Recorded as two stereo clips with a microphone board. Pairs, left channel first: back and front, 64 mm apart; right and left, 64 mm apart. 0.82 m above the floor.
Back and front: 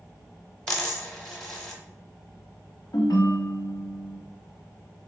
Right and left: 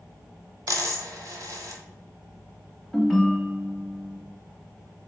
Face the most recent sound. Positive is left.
turn(degrees=-175)